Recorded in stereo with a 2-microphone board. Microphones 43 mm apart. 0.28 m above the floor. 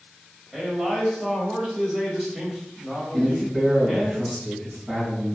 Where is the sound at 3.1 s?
20° right (ahead or behind), 1.6 m.